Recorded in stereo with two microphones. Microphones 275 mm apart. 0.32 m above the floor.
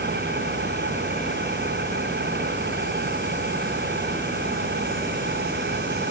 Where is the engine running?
40° right (ahead or behind).